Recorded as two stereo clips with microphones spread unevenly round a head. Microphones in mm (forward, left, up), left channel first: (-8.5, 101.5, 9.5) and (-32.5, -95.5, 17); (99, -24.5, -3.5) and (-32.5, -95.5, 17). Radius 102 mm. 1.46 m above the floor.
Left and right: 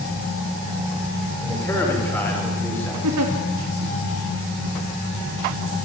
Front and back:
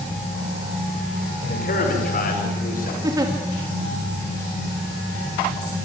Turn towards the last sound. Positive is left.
turn(degrees=-85)